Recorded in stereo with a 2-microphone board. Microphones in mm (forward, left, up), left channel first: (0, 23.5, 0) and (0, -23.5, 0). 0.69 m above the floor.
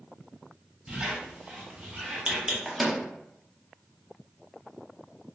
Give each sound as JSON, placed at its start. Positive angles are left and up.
{"t": 0.9, "sound": "a squeak", "side_deg": -15, "distance_m": 0.8}
{"t": 2.6, "sound": "a microwave", "side_deg": -5, "distance_m": 0.6}